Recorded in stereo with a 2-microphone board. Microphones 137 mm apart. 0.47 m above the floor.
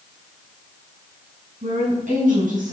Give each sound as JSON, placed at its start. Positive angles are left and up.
{"t": 1.6, "sound": "a woman speaking", "side_deg": -75, "distance_m": 4.5}